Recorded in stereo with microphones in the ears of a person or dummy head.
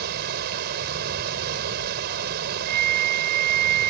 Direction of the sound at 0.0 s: 60° right (ahead or behind).